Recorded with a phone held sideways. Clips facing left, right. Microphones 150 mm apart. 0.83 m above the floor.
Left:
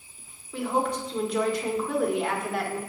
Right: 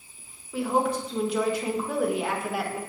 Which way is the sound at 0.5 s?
5° right (ahead or behind).